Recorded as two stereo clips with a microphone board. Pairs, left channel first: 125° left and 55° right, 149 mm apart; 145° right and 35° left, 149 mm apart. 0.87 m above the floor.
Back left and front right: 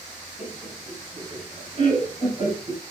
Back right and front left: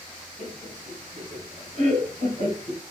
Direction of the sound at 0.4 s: 10° right.